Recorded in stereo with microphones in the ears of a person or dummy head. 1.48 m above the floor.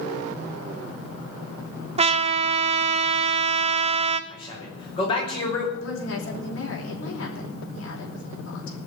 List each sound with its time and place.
2.0 s a trumpet: 35° right (ahead or behind), 0.6 m
4.3 s a man speaking: 25° left (ahead or behind), 5.5 m
5.7 s a woman speaking: 65° left (ahead or behind), 4.5 m